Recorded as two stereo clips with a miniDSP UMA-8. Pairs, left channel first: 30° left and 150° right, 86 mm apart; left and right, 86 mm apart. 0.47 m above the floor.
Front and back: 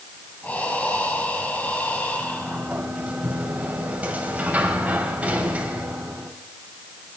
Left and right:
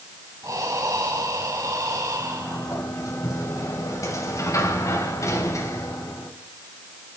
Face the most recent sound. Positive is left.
turn(degrees=135)